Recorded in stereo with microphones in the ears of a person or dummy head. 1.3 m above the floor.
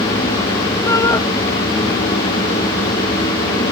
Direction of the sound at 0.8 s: 20° left (ahead or behind).